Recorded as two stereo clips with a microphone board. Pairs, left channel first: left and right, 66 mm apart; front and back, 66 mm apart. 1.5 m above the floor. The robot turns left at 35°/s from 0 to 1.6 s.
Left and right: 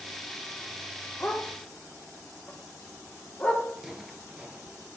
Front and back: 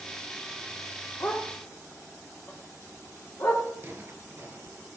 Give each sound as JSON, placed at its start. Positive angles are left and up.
{"t": 1.2, "sound": "a dog barking", "azimuth_deg": 35, "distance_m": 1.4}
{"t": 3.8, "sound": "footsteps", "azimuth_deg": -165, "distance_m": 1.7}